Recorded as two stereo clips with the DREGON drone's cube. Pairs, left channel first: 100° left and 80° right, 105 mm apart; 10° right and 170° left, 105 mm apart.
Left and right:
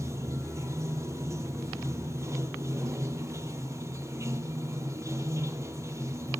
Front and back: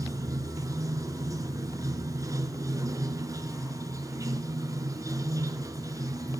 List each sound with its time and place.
0.0 s running water: 135° right, 1.3 m